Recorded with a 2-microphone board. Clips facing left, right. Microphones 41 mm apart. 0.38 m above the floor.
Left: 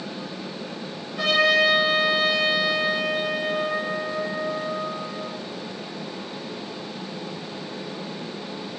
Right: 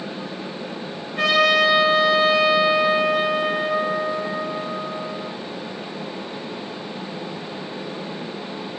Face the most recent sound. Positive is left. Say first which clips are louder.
# right 2 dB
turn(degrees=-40)  # may be behind; listen again after turning